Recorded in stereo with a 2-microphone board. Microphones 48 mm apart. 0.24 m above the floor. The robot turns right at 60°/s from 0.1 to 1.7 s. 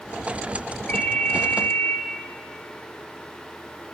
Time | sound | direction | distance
0.9 | a ringtone | 30° left | 3 m